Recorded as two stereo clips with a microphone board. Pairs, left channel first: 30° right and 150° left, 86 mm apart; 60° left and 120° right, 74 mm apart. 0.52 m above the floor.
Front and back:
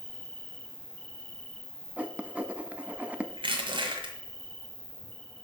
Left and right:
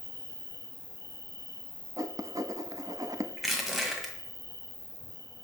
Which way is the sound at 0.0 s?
40° left.